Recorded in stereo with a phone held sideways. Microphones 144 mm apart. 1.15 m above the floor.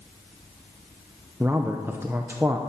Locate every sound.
1.4 s a man speaking: 15° right (ahead or behind), 0.7 m